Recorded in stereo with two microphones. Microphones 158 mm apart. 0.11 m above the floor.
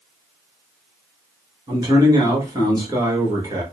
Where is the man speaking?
25° right (ahead or behind), 1.2 m.